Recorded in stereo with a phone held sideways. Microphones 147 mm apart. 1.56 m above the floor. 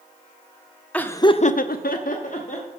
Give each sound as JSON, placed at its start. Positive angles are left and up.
{"t": 0.9, "sound": "laughter", "side_deg": 10, "distance_m": 0.8}